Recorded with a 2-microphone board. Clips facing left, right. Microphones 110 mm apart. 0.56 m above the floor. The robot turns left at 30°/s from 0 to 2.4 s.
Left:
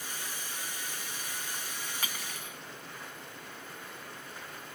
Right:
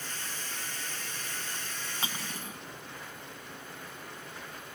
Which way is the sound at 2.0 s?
30° right (ahead or behind).